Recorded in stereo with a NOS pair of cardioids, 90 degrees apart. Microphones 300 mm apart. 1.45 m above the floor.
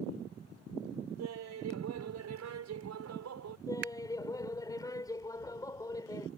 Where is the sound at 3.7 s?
10° left.